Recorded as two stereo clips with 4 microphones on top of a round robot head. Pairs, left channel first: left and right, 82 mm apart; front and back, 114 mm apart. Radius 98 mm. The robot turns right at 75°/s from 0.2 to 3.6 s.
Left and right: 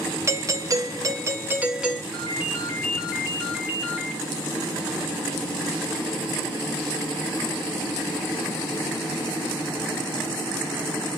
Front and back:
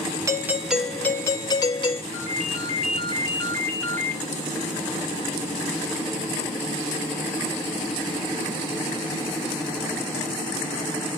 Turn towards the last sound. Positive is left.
turn(degrees=70)